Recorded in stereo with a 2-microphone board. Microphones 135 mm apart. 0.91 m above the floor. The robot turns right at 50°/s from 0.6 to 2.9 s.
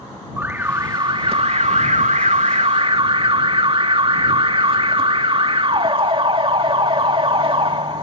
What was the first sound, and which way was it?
An alarm, 160° right.